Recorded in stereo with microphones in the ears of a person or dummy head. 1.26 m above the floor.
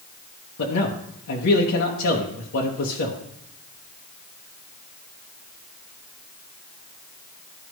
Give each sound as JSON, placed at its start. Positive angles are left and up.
{"t": 0.6, "sound": "a man speaking", "side_deg": 70, "distance_m": 1.1}